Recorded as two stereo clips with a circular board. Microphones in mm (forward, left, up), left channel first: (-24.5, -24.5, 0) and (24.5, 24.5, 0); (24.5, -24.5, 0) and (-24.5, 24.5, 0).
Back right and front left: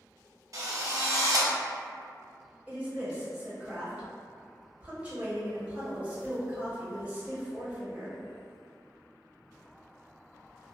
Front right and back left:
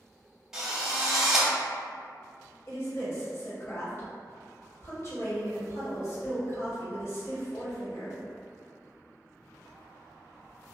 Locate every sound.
0.5 s a drill: 55° left, 0.7 m
2.7 s a woman speaking: 20° right, 1.0 m